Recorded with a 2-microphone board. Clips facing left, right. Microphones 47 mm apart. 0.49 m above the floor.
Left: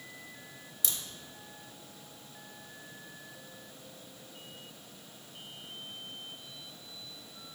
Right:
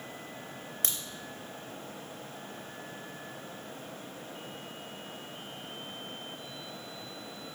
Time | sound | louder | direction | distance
0.8 | a crack | even | 50° right (ahead or behind) | 0.7 m